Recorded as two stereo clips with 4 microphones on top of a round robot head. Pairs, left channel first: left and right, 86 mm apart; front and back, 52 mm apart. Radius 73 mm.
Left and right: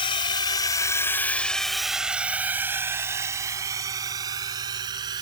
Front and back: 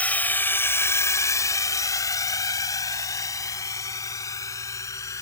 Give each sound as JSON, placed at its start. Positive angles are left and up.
{"t": 0.0, "sound": "a drone", "azimuth_deg": 60}